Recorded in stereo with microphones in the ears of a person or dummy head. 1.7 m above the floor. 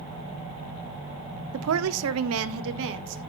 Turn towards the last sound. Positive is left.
turn(degrees=-70)  # may be behind; listen again after turning